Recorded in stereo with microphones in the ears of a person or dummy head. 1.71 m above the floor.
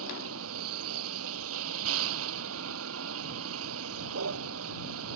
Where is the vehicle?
85° right.